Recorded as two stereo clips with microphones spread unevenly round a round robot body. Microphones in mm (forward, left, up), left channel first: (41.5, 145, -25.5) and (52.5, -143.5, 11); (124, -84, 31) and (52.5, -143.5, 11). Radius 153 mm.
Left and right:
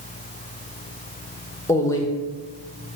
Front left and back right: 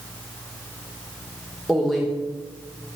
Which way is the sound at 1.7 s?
155° left.